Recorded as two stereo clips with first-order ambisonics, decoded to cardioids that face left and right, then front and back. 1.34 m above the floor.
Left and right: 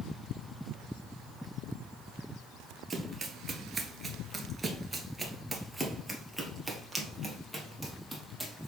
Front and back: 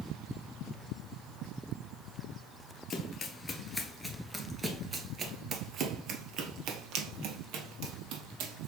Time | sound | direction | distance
2.9 | running footsteps | 35° right | 1.5 m